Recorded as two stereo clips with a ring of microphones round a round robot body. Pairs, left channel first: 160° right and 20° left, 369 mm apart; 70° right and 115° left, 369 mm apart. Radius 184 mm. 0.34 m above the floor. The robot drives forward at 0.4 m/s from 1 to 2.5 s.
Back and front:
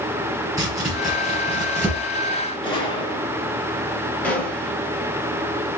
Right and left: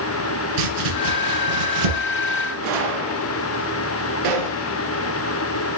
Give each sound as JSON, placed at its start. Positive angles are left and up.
{"t": 0.6, "sound": "chopping", "azimuth_deg": 105, "distance_m": 5.5}
{"t": 2.6, "sound": "a gunshot", "azimuth_deg": 125, "distance_m": 3.0}
{"t": 4.2, "sound": "a gunshot", "azimuth_deg": 115, "distance_m": 2.5}